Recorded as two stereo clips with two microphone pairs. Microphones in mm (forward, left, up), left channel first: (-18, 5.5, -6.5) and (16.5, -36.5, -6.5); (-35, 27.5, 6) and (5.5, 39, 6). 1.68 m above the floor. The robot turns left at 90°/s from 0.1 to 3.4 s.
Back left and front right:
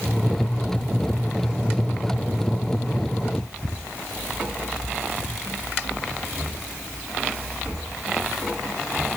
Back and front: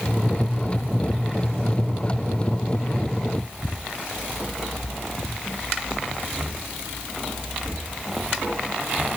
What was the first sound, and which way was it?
Only background noise.